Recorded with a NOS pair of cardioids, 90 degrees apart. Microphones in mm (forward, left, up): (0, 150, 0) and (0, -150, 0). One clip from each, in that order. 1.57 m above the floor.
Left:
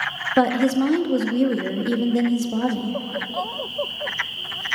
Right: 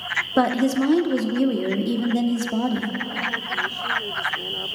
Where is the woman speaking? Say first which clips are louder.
Left 3 dB; straight ahead, 0.7 m.